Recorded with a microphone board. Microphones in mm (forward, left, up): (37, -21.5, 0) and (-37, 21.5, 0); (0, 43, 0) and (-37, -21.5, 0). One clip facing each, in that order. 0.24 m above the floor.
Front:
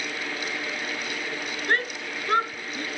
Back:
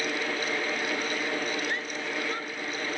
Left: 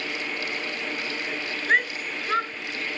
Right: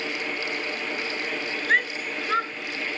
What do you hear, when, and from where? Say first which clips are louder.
1.7 s a shout: front 5 dB, left 1 dB; 25° right; by 2.9 s 35° right